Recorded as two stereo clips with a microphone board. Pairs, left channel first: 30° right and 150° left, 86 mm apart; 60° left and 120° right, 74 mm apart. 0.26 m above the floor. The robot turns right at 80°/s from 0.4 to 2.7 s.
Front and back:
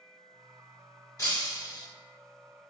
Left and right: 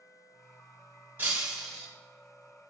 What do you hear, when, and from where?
1.2 s breaking glass: 70° right, 1.0 m; by 1.9 s 15° right, 1.0 m